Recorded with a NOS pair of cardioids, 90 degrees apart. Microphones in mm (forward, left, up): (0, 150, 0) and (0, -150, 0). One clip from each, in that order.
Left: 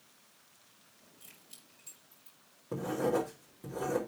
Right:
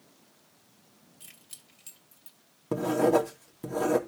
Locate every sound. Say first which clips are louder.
1.2 s keys jangling: right 6 dB; 60° right, 3 m
2.7 s writing: right 8 dB; 65° right, 2.5 m